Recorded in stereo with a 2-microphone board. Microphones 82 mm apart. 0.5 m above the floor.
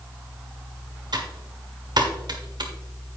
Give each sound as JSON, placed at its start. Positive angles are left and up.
{"t": 1.1, "sound": "typing on a keyboard", "side_deg": -60, "distance_m": 1.4}